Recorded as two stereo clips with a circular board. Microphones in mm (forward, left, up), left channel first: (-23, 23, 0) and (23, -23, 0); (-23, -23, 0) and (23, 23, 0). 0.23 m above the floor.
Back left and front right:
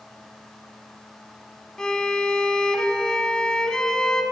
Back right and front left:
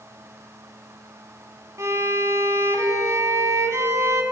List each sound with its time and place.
1.8 s a violin: 60° left, 0.8 m